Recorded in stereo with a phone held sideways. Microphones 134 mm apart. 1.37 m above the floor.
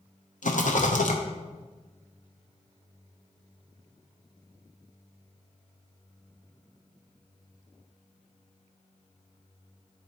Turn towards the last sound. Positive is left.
turn(degrees=80)